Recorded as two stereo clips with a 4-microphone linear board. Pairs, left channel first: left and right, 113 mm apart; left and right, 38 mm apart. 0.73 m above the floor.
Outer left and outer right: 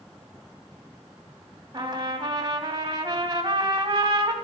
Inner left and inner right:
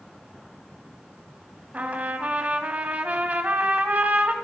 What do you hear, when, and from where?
1.7 s a trumpet: 40° right (ahead or behind), 2.5 m